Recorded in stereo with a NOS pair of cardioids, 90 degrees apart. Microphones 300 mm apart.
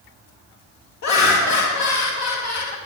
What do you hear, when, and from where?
1.0 s laughter: 65° left, 1.3 m